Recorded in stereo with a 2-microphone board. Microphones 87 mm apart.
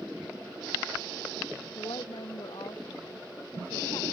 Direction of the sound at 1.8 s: 65° left (ahead or behind).